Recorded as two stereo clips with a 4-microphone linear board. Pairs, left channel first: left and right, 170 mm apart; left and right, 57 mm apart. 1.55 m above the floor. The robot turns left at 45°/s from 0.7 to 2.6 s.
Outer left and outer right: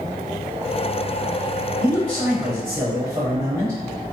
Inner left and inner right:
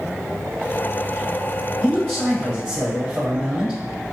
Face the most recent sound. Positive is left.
turn(degrees=-20)